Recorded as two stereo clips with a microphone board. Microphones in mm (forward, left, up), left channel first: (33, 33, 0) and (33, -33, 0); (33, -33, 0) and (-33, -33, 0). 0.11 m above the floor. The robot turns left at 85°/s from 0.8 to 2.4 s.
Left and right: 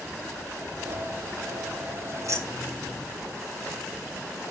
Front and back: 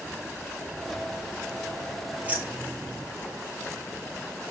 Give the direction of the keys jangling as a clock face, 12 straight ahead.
4 o'clock.